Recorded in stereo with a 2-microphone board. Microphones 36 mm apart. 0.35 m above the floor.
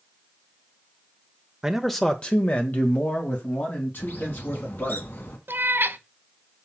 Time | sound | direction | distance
1.6 | a man speaking | 15° right (ahead or behind) | 0.8 m
4.0 | a bird | 70° left (ahead or behind) | 1.9 m
5.5 | a cat meowing | 80° right | 0.7 m